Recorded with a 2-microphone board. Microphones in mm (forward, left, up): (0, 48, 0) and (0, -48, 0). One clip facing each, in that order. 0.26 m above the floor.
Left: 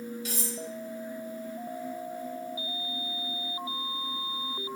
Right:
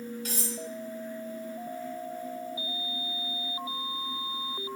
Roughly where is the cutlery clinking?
Right.